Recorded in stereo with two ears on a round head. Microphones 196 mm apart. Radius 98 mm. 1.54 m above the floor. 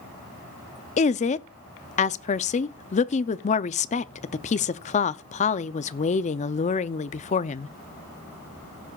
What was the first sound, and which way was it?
A woman speaking, 30° left (ahead or behind).